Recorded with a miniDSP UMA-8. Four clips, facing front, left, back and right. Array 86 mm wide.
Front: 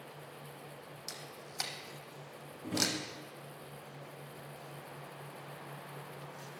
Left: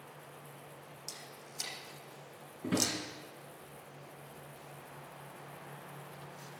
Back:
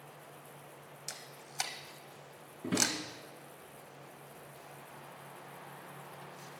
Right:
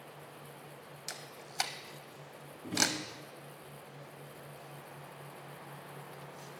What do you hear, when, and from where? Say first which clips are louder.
1.1 s a camera shutter: right 2 dB, front 2 dB; 100° right, 1.0 m
2.6 s a drawer: left 1 dB, back 2 dB; 125° left, 5.5 m